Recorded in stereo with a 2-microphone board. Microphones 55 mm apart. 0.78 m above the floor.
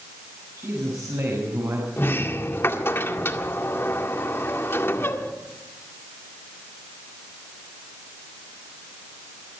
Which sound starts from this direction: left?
A sliding door, at 2.0 s.